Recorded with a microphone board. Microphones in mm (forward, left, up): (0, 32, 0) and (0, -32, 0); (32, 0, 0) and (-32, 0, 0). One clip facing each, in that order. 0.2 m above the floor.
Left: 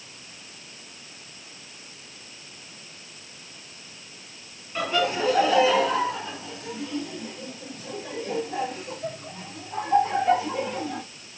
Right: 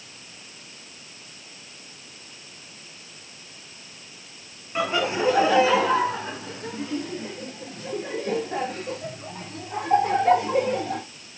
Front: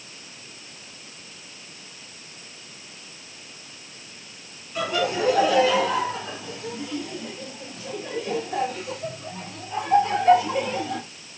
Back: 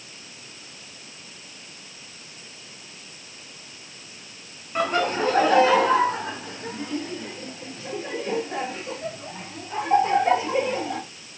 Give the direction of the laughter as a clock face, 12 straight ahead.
5 o'clock.